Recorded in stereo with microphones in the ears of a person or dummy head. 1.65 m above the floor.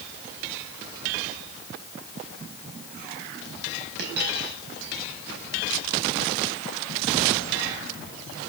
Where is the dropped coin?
60° right (ahead or behind), 4.5 m.